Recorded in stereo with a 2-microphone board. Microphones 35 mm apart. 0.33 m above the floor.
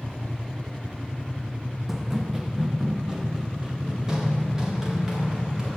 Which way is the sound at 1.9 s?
10° right (ahead or behind).